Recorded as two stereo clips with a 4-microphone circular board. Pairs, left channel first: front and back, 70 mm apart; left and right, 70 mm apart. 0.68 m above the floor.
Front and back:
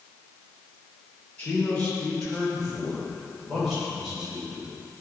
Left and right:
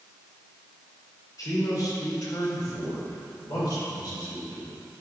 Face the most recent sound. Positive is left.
turn(degrees=100)